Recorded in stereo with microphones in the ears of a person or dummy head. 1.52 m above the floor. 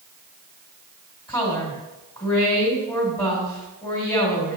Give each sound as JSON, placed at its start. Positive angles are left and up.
{"t": 1.3, "sound": "a woman speaking", "side_deg": 20, "distance_m": 2.0}